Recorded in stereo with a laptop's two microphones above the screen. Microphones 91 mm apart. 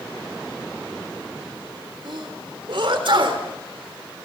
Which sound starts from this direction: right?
A sneeze, at 2.0 s.